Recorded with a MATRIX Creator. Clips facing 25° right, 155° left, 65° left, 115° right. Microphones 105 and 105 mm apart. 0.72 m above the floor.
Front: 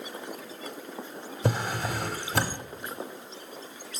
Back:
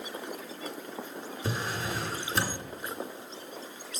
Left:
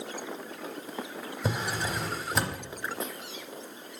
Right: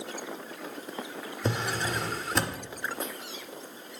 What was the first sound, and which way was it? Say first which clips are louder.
A drawer: front 5 dB, right 1 dB; 20° right.